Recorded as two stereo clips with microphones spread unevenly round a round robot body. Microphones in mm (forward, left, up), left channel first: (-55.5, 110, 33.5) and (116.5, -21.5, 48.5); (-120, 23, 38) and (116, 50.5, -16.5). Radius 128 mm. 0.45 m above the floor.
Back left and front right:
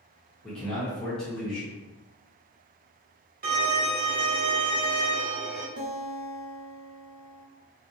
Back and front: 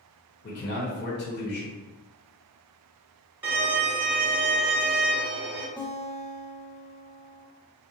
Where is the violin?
55° right, 1.3 m.